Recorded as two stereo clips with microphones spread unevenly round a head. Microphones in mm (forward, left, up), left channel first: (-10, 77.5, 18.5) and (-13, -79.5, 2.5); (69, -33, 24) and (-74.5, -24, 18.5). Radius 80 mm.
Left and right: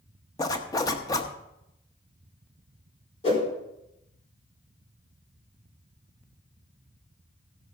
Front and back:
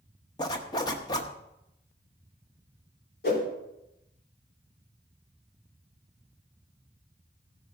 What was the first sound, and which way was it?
A zipper, 45° left.